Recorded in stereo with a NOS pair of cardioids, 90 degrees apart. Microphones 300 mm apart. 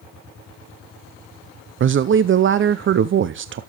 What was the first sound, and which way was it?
A man speaking, 40° right.